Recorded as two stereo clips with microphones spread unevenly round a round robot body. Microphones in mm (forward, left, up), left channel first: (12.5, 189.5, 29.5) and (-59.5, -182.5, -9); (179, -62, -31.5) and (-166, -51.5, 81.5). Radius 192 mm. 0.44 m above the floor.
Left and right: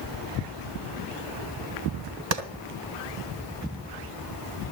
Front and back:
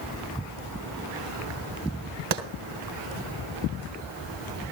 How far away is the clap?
About 2.5 m.